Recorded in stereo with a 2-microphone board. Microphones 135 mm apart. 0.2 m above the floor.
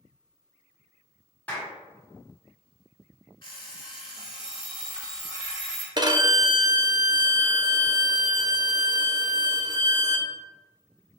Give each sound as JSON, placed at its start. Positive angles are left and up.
{"t": 1.5, "sound": "a clap", "side_deg": 10, "distance_m": 1.3}
{"t": 3.4, "sound": "an alarm clock", "side_deg": 35, "distance_m": 1.2}
{"t": 6.0, "sound": "a violin", "side_deg": -35, "distance_m": 0.7}